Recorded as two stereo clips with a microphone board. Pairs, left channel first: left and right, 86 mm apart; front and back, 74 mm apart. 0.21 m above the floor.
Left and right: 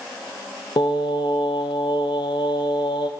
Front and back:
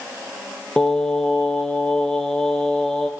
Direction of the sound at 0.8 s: 80° left.